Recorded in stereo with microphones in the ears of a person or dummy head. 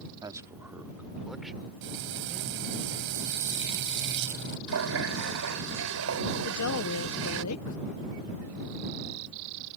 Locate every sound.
0.2 s a man speaking: 20° right (ahead or behind); by 2.5 s 5° left (ahead or behind)
1.8 s frying: 65° right (ahead or behind)
4.7 s a running tap: 75° right (ahead or behind)
6.4 s a woman speaking: 85° left